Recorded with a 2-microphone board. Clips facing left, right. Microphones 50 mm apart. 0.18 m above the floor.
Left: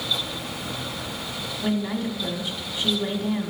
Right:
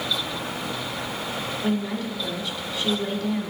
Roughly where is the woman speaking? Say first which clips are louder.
Left 2 dB; centre.